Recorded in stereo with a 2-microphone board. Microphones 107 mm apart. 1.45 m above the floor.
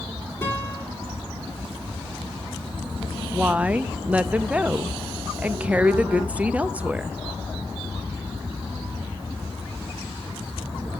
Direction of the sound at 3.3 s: 15° right (ahead or behind).